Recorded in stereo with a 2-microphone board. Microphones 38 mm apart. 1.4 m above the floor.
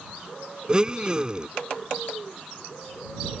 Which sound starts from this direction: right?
A blender, at 0.7 s.